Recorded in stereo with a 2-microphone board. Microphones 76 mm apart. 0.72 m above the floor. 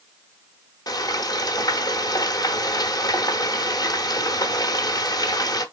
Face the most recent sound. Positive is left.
turn(degrees=60)  # may be behind; listen again after turning